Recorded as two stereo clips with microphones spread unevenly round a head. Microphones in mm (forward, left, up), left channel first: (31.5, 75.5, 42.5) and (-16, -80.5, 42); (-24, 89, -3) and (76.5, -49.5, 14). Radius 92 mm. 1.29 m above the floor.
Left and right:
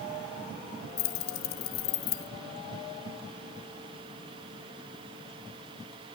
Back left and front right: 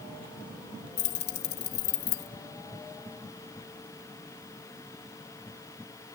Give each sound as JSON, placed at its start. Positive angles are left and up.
{"t": 1.0, "sound": "keys jangling", "azimuth_deg": 105, "distance_m": 0.8}